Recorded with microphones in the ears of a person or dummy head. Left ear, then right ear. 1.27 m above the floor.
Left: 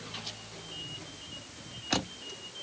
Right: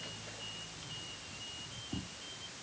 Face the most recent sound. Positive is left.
No sound to turn to.